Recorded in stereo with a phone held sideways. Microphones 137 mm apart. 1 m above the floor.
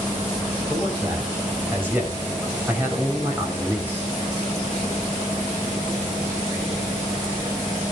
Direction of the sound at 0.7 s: 15° right (ahead or behind).